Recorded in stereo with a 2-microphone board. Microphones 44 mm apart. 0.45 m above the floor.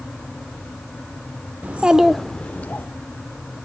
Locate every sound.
1.6 s a child speaking: 40° right (ahead or behind), 0.8 m; by 2.9 s 40° left (ahead or behind), 1.0 m